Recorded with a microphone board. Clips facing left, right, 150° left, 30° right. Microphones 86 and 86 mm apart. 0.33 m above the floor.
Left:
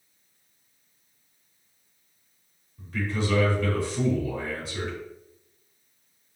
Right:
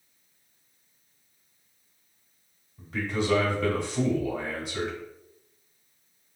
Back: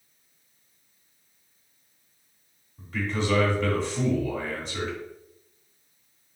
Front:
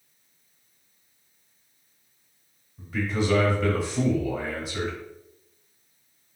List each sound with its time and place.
2.8 s a man speaking: 115° right, 0.9 m